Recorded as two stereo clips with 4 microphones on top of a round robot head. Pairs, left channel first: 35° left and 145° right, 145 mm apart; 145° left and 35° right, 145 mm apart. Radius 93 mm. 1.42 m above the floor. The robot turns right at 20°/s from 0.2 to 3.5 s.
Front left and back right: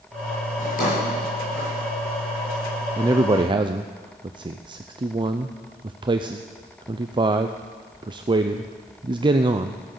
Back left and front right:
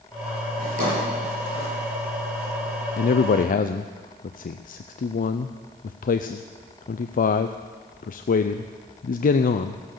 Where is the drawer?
5° right, 7 m; by 1.7 s 15° left, 7 m.